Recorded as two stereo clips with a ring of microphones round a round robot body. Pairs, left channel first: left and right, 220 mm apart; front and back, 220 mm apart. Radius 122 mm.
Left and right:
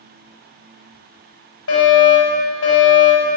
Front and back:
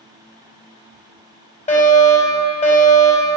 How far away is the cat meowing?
No cat meowing in this recording.